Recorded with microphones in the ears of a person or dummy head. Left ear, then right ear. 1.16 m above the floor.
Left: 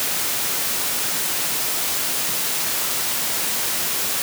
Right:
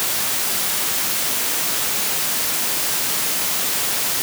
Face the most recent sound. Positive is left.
No sound to turn to.